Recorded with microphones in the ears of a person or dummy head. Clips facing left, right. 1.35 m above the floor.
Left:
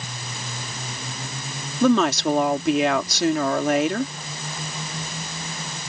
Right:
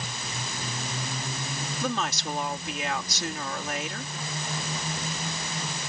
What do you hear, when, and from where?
1.8 s a woman speaking: 65° left (ahead or behind)